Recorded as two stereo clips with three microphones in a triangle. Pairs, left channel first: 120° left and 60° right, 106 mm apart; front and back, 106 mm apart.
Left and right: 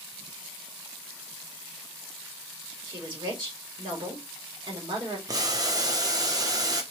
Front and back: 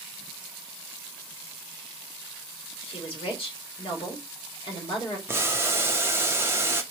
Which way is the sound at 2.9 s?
25° right.